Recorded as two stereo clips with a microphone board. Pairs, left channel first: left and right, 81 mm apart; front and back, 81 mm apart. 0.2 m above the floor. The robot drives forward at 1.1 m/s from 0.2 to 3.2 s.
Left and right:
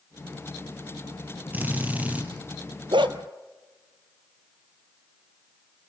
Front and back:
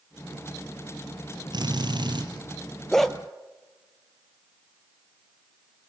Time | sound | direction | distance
1.5 | a drill | 160° right | 4 m
2.9 | a dog barking | 85° right | 1.5 m